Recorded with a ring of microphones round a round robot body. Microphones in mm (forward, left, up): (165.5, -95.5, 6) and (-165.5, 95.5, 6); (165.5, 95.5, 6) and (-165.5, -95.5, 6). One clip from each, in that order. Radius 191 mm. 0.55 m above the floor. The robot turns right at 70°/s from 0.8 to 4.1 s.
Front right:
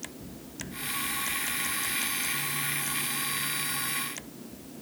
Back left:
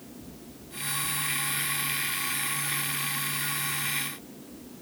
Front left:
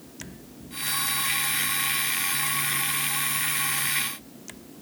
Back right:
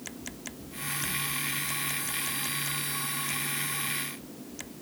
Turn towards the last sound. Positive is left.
No sound to turn to.